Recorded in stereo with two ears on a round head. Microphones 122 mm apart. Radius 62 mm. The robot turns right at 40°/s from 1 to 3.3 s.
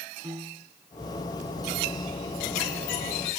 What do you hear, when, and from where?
0.2 s a piano: 25° right (ahead or behind)